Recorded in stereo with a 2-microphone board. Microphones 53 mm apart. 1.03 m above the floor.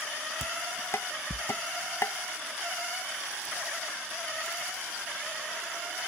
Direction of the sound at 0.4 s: 70° left (ahead or behind).